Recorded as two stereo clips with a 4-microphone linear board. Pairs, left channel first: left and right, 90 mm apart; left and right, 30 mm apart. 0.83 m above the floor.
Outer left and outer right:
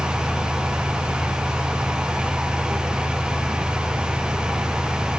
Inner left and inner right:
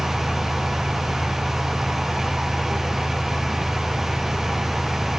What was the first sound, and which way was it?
Only background noise.